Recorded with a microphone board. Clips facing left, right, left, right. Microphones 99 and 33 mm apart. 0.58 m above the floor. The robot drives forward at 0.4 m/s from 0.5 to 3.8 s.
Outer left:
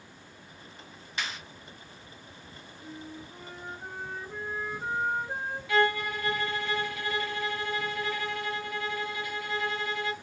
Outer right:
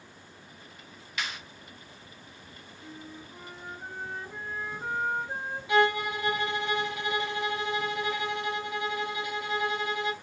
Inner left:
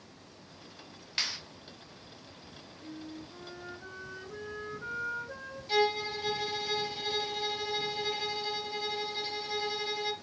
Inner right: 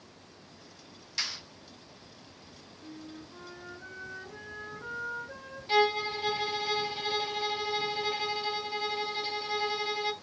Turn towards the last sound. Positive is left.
turn(degrees=-20)  # may be behind; listen again after turning